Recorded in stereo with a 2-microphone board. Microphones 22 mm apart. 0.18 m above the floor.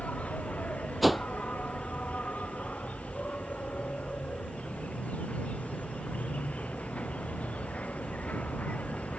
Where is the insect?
85° left.